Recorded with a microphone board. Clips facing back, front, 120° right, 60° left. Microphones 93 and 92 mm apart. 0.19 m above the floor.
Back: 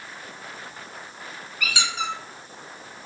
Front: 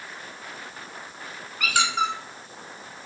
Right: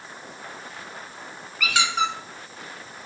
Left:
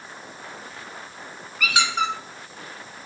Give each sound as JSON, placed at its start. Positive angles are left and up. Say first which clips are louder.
{"t": 1.6, "sound": "a squeak", "louder": "front 5 dB, even", "azimuth_deg": -25, "distance_m": 0.8}